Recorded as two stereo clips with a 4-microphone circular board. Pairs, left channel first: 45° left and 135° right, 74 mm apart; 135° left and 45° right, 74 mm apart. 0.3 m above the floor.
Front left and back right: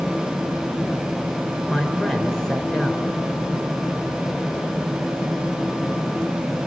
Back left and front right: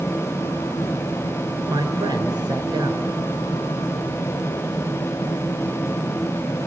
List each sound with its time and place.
1.7 s a man speaking: 35° right, 3.5 m